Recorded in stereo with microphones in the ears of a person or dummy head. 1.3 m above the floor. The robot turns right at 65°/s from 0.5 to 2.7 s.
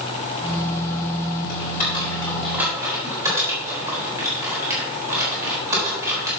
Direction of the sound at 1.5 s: 65° left (ahead or behind).